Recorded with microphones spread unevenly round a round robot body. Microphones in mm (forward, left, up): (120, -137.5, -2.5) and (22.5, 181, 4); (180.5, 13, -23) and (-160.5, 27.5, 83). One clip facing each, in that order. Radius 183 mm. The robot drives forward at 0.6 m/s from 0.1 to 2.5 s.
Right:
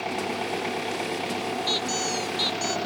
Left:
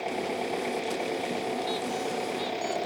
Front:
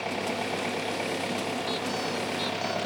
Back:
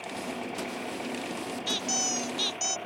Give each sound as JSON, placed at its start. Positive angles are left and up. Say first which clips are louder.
{"t": 0.0, "sound": "an engine running", "louder": "right 1 dB, front 5 dB", "azimuth_deg": -10}
{"t": 1.7, "sound": "a squeak", "louder": "right 1 dB, front 3 dB", "azimuth_deg": -125}